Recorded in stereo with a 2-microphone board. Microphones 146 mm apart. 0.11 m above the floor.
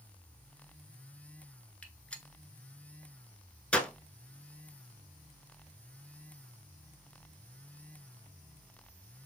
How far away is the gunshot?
About 0.5 m.